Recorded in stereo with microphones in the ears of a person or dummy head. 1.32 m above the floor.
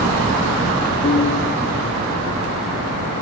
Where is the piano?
40° left (ahead or behind), 1.1 m.